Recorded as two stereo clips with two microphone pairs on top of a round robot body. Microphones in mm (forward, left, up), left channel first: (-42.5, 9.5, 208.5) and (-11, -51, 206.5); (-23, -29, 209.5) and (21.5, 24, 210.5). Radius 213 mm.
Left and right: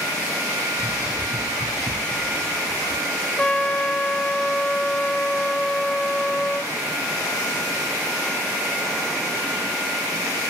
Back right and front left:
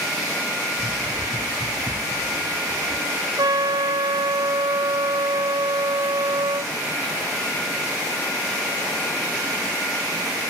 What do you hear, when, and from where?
0.8 s running footsteps: 110° right, 1.4 m; by 3.3 s 15° left, 1.4 m
3.4 s a trumpet: 40° left, 0.9 m